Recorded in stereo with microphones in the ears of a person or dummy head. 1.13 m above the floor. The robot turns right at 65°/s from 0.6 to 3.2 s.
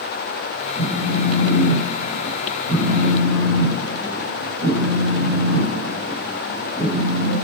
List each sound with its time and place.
0.8 s a phone buzzing: 40° left, 1.9 m; by 7.3 s 165° right, 1.9 m